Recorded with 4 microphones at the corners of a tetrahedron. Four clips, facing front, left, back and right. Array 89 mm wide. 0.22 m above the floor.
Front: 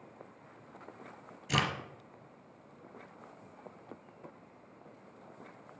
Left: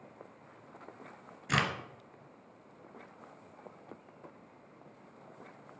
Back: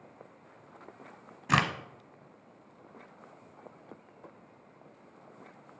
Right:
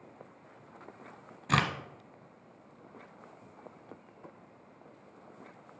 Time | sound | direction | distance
1.5 | a crack | 170° right | 1.2 m